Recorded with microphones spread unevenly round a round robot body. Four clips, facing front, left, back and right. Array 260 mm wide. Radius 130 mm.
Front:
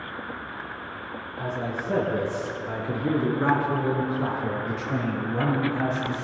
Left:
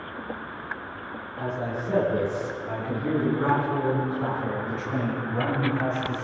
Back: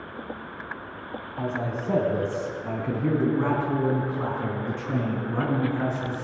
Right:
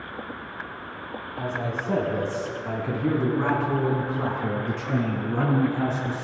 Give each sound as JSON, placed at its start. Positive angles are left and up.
{"t": 1.4, "sound": "a man speaking", "azimuth_deg": -165, "distance_m": 5.5}